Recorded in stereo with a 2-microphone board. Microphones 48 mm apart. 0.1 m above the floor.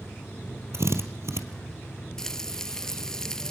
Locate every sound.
0.7 s a drill: 65° right (ahead or behind), 2 m
2.2 s frying: 10° left (ahead or behind), 0.8 m